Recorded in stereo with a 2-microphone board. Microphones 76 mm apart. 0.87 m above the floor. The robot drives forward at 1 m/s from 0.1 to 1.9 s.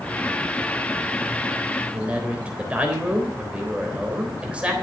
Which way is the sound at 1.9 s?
20° right (ahead or behind).